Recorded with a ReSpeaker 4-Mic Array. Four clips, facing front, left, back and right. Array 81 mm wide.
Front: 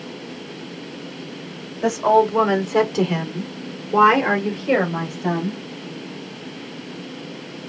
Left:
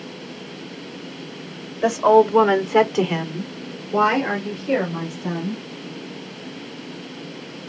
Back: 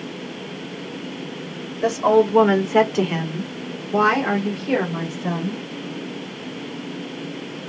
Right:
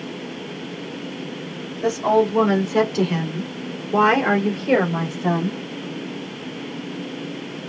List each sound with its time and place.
1.8 s a woman speaking: 110° left, 1.9 m; by 5.6 s 65° right, 2 m